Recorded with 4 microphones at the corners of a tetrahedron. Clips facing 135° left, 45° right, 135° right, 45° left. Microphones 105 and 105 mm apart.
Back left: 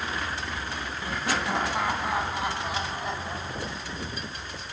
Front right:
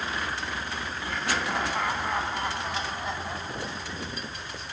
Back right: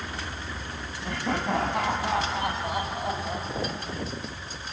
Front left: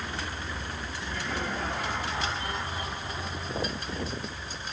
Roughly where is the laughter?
Behind right.